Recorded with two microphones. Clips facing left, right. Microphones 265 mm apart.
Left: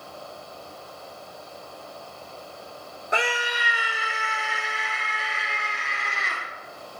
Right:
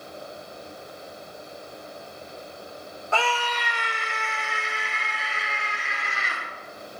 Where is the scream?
20° left (ahead or behind), 0.6 m; by 6.4 s centre (ahead or behind), 3 m.